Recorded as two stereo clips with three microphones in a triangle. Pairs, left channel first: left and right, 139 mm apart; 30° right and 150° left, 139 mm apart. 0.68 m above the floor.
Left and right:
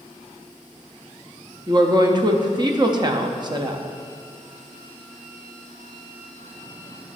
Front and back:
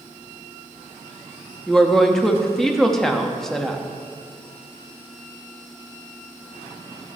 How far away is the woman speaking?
About 0.6 m.